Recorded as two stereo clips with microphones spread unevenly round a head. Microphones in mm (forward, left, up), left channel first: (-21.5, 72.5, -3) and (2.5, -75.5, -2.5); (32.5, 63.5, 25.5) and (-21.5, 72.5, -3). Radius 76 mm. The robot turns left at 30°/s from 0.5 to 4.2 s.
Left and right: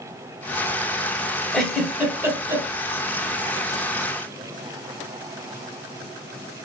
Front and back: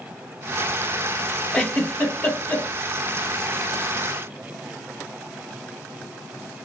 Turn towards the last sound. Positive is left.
turn(degrees=-65)